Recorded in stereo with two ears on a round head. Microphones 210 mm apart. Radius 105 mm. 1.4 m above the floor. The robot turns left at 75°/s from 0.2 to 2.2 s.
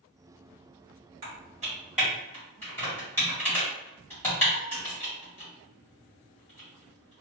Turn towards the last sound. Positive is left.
turn(degrees=10)  # may be behind; listen again after turning